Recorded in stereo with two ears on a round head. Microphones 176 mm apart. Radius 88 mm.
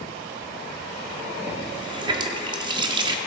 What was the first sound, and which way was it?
A running tap, 25° right (ahead or behind).